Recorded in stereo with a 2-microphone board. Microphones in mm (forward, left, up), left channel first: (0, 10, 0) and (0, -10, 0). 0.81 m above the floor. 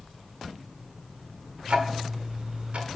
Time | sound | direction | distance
1.7 | ticking | 85° right | 1.2 m